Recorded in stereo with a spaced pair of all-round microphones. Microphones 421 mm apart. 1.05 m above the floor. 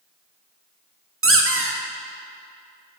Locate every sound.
1.2 s a squeak: 30° right (ahead or behind), 0.6 m